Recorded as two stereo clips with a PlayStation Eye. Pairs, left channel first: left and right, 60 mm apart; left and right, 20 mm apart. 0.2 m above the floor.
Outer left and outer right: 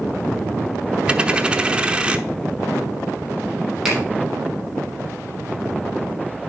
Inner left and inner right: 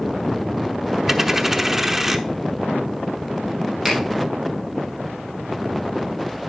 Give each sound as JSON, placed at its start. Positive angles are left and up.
{"t": 1.1, "sound": "a dropped coin", "side_deg": -20, "distance_m": 0.8}
{"t": 3.9, "sound": "a finger snap", "side_deg": -5, "distance_m": 4.5}